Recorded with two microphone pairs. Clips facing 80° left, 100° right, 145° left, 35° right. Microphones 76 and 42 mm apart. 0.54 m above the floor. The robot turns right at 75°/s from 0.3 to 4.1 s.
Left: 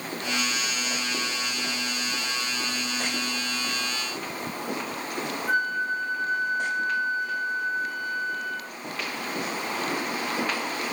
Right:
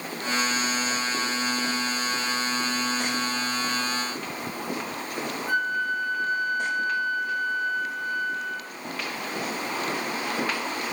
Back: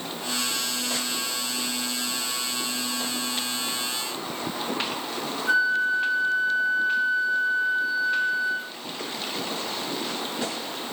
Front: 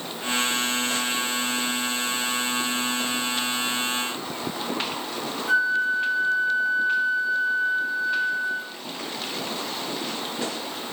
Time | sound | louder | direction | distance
5.5 | a flute | even, even | 175° left | 7 m